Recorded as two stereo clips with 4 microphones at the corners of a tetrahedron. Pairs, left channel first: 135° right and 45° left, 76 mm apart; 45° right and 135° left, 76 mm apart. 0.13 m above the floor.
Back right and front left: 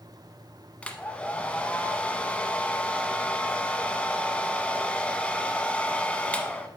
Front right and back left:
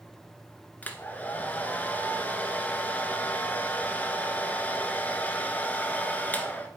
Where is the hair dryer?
80° right, 1.0 m.